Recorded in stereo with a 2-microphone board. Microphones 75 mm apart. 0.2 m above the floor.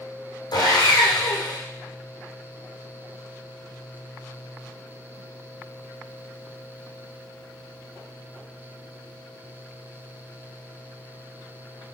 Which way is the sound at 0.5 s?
85° left.